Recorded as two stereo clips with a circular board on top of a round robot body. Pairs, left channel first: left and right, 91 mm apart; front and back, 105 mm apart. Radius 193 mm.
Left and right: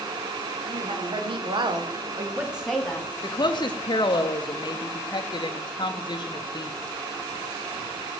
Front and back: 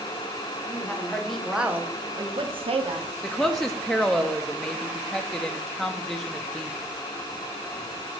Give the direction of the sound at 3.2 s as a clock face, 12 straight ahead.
9 o'clock.